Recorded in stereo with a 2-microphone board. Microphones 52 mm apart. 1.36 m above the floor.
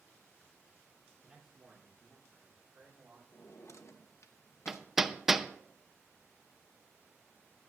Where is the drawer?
65° left (ahead or behind), 0.9 m.